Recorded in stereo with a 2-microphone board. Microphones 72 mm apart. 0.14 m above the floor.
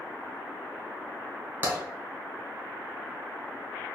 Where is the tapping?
25° right (ahead or behind), 1.4 m.